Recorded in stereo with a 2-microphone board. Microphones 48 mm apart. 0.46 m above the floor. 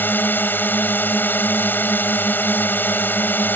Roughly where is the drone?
Left.